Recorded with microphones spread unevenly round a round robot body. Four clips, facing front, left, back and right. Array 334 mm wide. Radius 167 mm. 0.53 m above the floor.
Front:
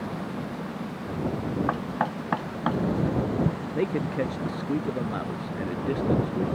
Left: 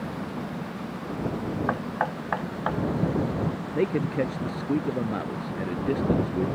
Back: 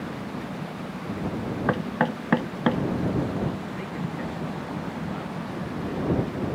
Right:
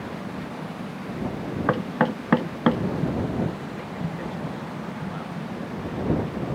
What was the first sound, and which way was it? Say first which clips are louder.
Knocking: right 8 dB, back 2 dB; 115° right.